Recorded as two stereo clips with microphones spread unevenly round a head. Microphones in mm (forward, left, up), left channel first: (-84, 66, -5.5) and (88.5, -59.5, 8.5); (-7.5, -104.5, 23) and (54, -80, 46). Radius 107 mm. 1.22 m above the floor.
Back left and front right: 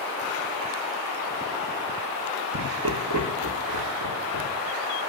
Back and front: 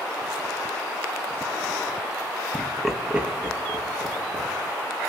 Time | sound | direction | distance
2.5 | laughter | 80° right | 1.3 m